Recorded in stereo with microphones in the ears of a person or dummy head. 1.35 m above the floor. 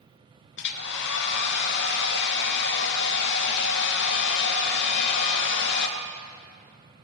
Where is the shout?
I don't hear a shout.